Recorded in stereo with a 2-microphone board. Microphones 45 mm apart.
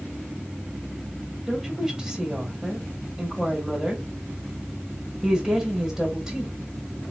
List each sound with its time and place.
1.5 s a woman speaking: 15° right (ahead or behind), 1.8 m